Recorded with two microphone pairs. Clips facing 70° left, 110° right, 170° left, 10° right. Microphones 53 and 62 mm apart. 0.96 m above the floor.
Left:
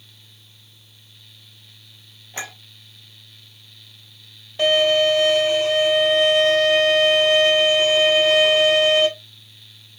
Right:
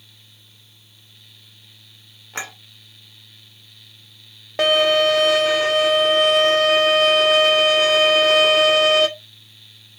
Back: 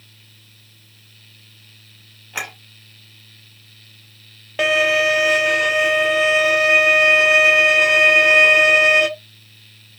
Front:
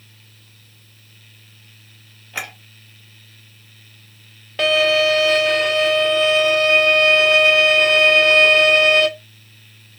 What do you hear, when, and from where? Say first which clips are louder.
2.3 s a clink: right 2 dB, back 1 dB; 115° right, 2.5 m
4.6 s a violin: right 1 dB, front 1 dB; 115° right, 0.7 m